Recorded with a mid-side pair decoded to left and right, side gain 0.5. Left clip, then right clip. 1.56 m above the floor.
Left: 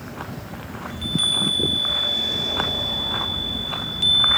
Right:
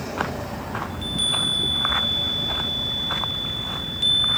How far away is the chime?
About 5.5 m.